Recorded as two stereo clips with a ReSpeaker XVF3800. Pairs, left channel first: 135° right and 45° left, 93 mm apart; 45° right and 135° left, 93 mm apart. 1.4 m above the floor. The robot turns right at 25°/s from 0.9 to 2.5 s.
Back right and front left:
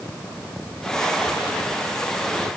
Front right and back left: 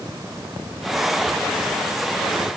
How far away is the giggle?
No giggle in this recording.